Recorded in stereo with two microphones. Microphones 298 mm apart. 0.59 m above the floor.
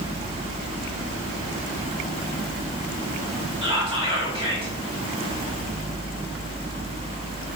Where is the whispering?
20° right (ahead or behind), 1.3 m.